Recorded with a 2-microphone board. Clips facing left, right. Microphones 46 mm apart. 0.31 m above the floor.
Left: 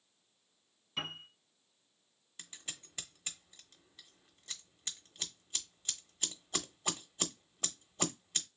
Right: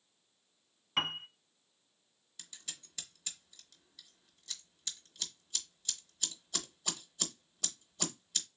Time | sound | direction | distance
1.0 | a piano | 70° right (ahead or behind) | 0.8 m
2.4 | scissors | 35° left (ahead or behind) | 0.9 m